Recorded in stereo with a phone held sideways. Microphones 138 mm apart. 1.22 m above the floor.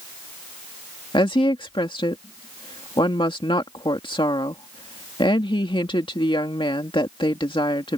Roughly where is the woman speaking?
Left.